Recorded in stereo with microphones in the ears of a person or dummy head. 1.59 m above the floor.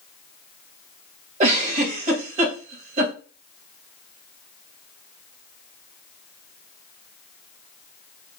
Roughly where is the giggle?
Right.